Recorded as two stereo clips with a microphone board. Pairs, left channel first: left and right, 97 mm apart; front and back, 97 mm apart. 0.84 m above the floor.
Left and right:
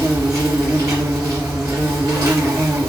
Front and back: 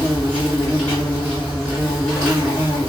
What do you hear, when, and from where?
0.0 s an insect: 75° right, 2 m